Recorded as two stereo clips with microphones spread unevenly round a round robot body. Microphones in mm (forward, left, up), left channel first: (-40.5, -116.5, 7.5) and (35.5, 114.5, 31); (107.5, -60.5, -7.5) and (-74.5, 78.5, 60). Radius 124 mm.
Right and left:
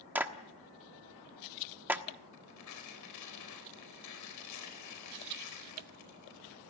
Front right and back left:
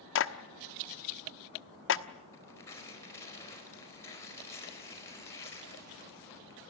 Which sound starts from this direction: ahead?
A clap, at 0.1 s.